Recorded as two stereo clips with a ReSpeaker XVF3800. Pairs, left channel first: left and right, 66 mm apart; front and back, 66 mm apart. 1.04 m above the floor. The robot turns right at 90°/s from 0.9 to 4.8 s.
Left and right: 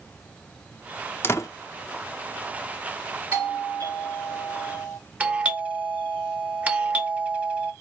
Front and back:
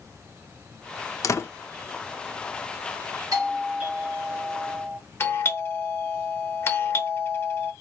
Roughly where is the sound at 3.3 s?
Behind right.